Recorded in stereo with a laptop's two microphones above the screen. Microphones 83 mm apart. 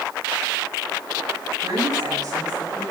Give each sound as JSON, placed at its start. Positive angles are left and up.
{"t": 1.6, "sound": "a woman speaking", "side_deg": -55, "distance_m": 8.5}